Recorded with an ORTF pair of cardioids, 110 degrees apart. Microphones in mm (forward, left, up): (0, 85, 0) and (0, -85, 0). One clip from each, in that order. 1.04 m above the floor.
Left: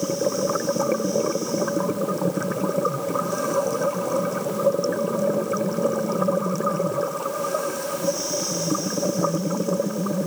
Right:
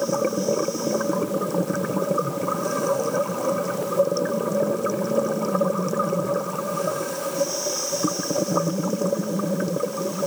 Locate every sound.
Only background noise.